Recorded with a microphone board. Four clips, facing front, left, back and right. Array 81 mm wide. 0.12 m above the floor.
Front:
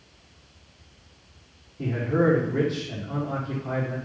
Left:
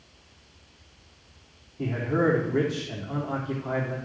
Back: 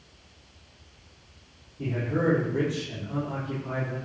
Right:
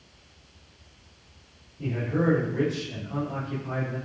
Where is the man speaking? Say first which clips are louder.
Left 2 dB, front 4 dB; 70° left, 6 m.